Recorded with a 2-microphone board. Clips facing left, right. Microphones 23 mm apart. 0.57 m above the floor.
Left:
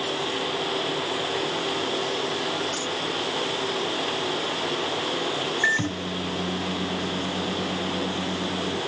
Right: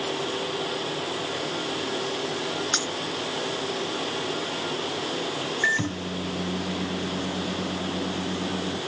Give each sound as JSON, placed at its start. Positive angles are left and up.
{"t": 2.7, "sound": "a dropped coin", "side_deg": -80}
{"t": 5.6, "sound": "a microwave", "side_deg": 10}